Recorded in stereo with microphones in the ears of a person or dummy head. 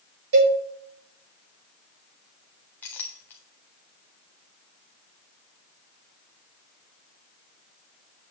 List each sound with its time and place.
0.3 s a cowbell: 65° right (ahead or behind), 1.6 m
2.8 s a clink: 10° left (ahead or behind), 0.8 m